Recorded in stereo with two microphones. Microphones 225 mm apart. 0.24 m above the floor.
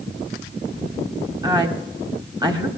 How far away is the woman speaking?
About 1.1 m.